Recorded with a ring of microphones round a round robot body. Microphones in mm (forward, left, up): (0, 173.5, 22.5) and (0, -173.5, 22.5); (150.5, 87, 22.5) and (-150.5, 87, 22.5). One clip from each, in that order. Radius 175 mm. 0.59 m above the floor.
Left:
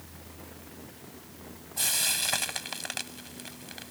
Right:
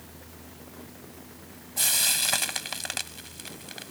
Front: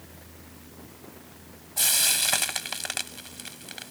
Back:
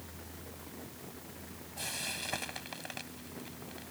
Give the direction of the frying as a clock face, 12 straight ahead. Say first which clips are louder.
Right 3 dB, front 14 dB; 12 o'clock.